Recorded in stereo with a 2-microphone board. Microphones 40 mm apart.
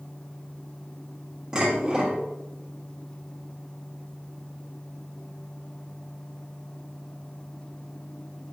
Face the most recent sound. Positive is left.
turn(degrees=-20)  # may be behind; listen again after turning